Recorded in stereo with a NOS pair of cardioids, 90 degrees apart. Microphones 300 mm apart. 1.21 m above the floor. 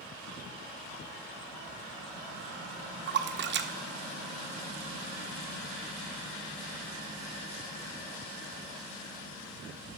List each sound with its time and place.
3.1 s a splash: 40° right, 0.6 m